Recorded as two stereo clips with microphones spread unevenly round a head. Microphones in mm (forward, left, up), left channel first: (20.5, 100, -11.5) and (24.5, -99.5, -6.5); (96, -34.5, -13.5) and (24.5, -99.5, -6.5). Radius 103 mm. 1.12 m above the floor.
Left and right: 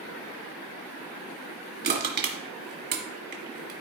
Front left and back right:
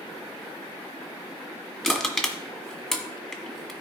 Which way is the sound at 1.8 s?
45° right.